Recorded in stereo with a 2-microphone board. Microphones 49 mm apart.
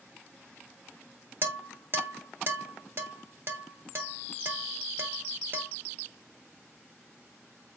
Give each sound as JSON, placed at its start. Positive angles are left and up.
{"t": 1.4, "sound": "dishes clattering", "side_deg": -45, "distance_m": 0.8}